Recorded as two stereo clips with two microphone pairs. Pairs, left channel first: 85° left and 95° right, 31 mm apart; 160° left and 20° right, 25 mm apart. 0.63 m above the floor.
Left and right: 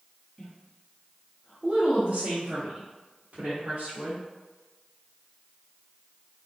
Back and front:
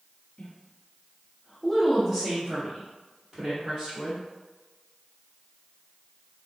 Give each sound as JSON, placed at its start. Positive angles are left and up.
{"t": 0.4, "sound": "a woman speaking", "azimuth_deg": 170, "distance_m": 0.9}